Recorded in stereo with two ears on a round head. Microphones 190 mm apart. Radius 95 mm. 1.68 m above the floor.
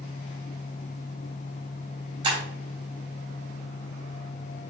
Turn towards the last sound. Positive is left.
turn(degrees=-20)  # may be behind; listen again after turning